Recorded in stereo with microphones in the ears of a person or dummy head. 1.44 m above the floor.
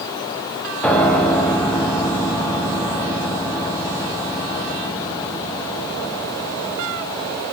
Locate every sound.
0.8 s a piano: 15° left (ahead or behind), 1.1 m